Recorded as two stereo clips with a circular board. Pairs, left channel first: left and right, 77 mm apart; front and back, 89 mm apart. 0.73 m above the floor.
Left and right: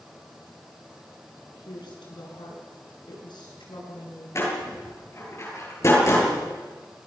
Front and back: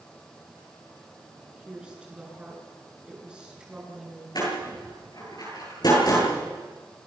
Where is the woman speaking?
100° left, 8 m.